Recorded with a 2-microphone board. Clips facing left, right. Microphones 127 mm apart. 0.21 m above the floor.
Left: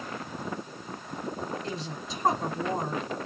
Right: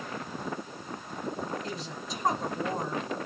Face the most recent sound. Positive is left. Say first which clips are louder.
# left 2 dB
turn(degrees=25)  # may be behind; listen again after turning